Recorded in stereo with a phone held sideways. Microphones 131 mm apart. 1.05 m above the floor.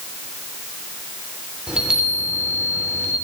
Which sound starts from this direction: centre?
A chime, at 1.7 s.